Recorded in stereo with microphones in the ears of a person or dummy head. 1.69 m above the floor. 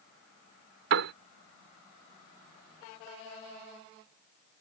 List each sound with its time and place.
0.9 s a piano: 65° right (ahead or behind)